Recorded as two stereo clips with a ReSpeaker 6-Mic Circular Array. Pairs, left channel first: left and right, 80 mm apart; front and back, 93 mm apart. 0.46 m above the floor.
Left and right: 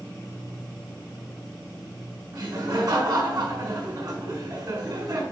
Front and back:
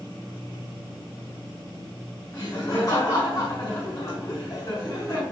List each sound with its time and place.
2.3 s laughter: 45° right, 3 m